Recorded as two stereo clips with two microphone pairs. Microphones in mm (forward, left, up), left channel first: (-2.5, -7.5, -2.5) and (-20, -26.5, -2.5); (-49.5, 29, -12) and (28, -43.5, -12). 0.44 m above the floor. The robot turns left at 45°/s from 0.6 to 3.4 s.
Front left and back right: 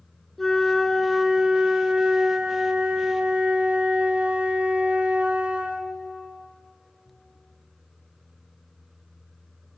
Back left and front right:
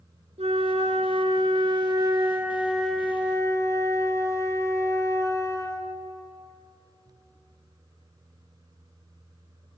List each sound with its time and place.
0.4 s a flute: 35° right, 1.6 m; by 5.9 s 160° right, 1.6 m